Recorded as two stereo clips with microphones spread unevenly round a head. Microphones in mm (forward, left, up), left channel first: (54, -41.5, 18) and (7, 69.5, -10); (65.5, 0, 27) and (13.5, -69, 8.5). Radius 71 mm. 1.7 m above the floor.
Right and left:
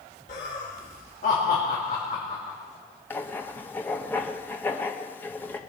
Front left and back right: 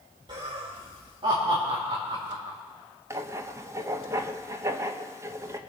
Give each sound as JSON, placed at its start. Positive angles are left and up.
{"t": 0.3, "sound": "laughter", "azimuth_deg": -95, "distance_m": 2.5}
{"t": 3.1, "sound": "writing", "azimuth_deg": -80, "distance_m": 0.9}